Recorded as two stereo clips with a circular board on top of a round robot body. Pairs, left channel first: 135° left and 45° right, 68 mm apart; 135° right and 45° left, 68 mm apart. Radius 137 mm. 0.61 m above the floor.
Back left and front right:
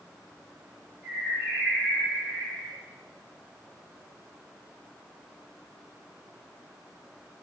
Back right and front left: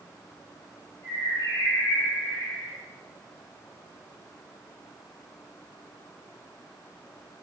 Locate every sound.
1.0 s a bird: 140° right, 2.5 m